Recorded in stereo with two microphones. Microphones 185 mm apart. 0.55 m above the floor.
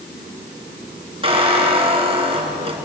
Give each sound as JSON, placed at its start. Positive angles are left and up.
{"t": 1.2, "sound": "a squeak", "side_deg": -30, "distance_m": 4.0}